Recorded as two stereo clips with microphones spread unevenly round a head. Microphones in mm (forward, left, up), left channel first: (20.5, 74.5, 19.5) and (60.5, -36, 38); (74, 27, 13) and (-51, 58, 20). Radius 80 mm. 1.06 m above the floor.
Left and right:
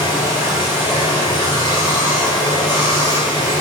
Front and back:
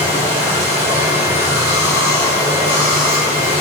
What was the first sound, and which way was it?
Running water, 170° left.